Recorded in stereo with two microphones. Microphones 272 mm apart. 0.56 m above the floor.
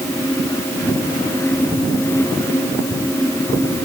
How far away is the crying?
I don't hear crying.